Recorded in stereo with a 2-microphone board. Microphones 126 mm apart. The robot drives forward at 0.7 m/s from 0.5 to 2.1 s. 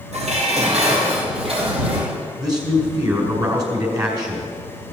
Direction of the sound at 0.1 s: 60° right (ahead or behind).